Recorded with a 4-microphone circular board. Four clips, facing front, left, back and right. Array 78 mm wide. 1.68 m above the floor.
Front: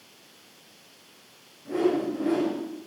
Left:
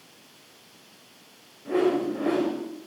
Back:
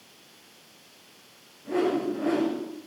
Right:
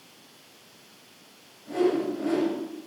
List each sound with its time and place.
1.6 s a whoosh: 100° left, 5.5 m